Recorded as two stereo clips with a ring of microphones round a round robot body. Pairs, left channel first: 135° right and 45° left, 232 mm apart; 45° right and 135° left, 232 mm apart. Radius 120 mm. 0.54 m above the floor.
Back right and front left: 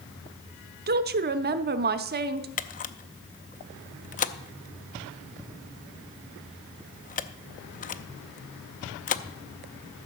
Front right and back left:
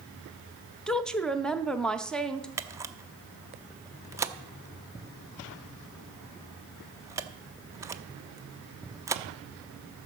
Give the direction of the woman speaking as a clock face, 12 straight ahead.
11 o'clock.